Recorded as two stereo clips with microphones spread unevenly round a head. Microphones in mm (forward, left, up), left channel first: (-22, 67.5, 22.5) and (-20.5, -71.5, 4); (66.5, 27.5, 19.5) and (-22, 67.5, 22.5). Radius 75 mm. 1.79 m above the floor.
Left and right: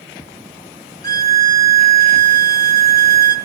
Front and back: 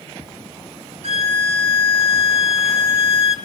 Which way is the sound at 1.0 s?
150° left.